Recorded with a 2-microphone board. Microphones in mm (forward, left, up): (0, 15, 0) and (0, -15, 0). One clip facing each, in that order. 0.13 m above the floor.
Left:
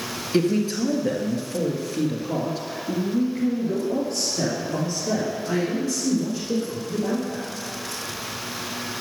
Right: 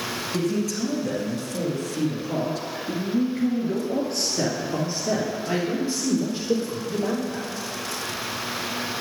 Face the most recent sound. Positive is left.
turn(degrees=-35)  # may be behind; listen again after turning